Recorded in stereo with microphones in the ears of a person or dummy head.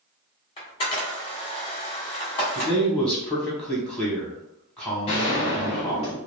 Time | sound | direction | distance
0.6 | a camera shutter | 30° left (ahead or behind) | 1.4 m
2.5 | a man speaking | 5° left (ahead or behind) | 1.2 m
5.1 | a gunshot | 20° left (ahead or behind) | 0.7 m